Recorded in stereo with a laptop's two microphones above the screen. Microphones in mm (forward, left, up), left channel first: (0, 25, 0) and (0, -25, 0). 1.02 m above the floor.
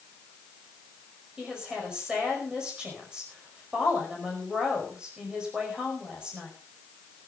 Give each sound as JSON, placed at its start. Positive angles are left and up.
{"t": 1.4, "sound": "a woman speaking", "side_deg": -20, "distance_m": 5.0}